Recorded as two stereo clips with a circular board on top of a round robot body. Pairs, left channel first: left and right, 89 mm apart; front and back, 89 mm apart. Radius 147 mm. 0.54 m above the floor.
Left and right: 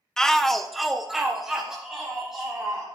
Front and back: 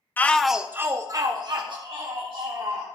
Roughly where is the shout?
Ahead.